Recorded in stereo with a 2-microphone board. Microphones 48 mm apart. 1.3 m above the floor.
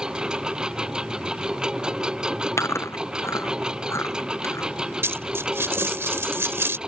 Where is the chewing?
80° left.